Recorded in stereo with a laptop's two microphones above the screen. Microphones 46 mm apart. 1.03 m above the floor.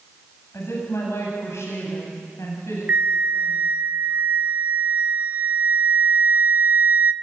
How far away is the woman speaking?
About 8.5 m.